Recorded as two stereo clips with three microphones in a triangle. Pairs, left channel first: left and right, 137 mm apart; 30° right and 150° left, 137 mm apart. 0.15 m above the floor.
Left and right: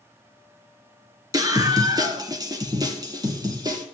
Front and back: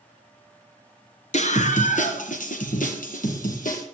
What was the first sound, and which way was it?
A scream, 35° right.